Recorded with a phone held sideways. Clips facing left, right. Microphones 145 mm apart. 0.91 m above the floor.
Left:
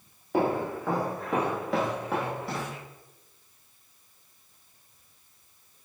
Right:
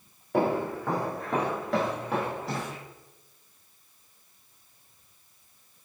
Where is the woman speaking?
I don't hear a woman speaking.